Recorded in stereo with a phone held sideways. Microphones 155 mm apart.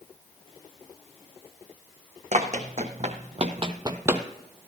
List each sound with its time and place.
2.3 s running footsteps: 50° right (ahead or behind), 2 m; by 4.2 s 10° right (ahead or behind), 1.1 m